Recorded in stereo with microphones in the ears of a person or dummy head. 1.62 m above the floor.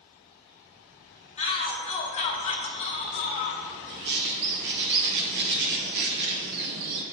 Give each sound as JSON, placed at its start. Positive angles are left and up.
{"t": 1.4, "sound": "a shout", "side_deg": 35, "distance_m": 1.7}
{"t": 3.9, "sound": "a bird", "side_deg": -55, "distance_m": 1.0}